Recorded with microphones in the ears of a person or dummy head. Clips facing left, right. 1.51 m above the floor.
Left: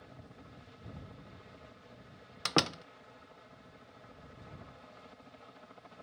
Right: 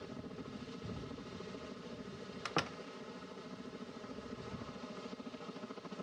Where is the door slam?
60° left (ahead or behind).